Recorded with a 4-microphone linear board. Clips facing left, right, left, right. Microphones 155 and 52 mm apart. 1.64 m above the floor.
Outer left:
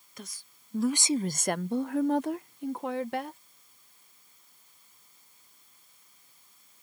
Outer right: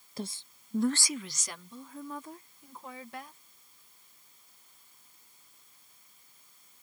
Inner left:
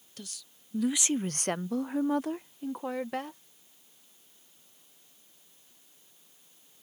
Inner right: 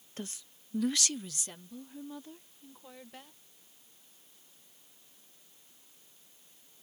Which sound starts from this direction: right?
A woman speaking, at 0.2 s.